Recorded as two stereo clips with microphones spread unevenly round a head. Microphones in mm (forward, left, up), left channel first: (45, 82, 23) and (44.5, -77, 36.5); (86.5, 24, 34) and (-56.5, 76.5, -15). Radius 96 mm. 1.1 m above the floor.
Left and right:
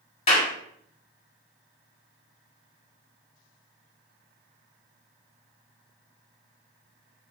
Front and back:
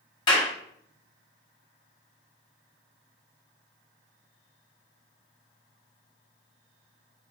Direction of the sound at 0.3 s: 40° left.